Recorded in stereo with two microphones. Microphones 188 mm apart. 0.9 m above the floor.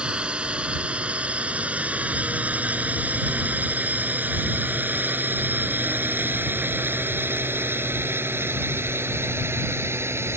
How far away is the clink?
No clink in this recording.